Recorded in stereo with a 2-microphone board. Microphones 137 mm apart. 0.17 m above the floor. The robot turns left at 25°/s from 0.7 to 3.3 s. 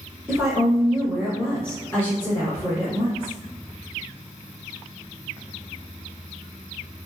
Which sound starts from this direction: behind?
A woman speaking, at 0.3 s.